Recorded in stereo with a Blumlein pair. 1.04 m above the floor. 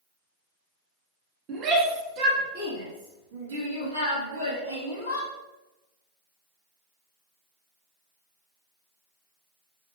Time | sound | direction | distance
1.5 | a shout | 30° right | 1.7 m